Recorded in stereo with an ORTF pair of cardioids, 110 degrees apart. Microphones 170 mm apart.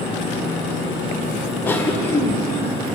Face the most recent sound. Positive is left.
turn(degrees=15)